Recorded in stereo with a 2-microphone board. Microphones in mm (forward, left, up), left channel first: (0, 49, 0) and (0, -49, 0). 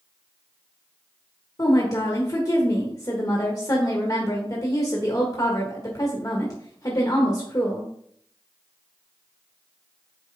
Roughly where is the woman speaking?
Left.